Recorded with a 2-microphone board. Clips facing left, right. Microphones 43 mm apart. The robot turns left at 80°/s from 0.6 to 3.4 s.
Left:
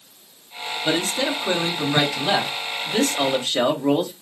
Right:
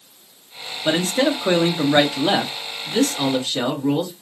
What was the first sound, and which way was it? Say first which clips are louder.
A man speaking: right 4 dB; 40° right.